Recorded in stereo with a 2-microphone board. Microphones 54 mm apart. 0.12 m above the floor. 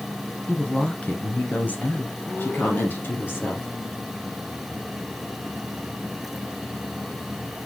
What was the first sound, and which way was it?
A woman speaking, 15° left (ahead or behind).